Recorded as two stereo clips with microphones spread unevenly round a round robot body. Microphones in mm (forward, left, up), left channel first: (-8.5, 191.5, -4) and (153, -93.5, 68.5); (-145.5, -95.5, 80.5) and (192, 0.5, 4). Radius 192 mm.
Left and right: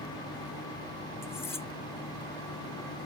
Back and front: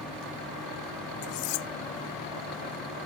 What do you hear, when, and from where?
1.2 s cutlery clinking: 155° right